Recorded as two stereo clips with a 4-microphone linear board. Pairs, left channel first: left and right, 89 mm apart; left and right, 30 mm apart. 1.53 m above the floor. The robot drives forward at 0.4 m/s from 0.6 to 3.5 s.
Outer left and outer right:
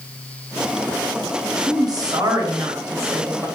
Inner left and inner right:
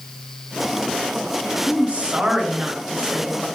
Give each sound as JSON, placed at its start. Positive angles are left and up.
{"t": 1.7, "sound": "a woman speaking", "side_deg": -55, "distance_m": 0.8}